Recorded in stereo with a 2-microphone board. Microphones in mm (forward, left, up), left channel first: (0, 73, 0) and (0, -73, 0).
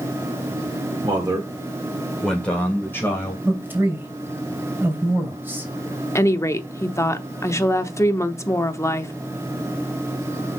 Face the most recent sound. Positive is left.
turn(degrees=20)  # may be behind; listen again after turning